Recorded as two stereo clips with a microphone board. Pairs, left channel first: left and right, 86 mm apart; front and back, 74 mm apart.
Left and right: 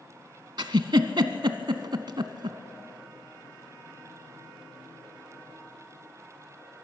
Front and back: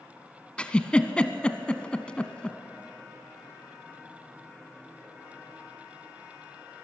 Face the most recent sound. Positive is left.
turn(degrees=-75)